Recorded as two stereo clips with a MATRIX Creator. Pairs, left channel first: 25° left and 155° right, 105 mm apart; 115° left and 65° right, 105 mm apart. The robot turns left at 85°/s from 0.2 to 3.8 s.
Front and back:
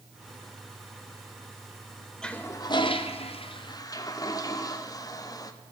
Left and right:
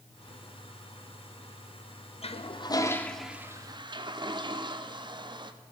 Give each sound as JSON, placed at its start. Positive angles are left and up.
{"t": 2.2, "sound": "a toilet flushing", "azimuth_deg": 105, "distance_m": 0.5}